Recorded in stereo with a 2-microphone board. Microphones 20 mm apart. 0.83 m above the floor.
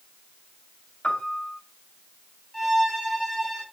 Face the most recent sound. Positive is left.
turn(degrees=15)  # may be behind; listen again after turning